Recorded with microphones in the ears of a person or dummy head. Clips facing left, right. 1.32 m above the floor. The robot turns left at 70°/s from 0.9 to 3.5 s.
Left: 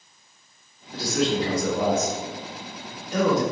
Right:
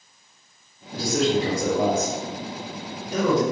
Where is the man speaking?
15° right (ahead or behind), 1.8 m; by 3.4 s 10° left (ahead or behind), 1.8 m.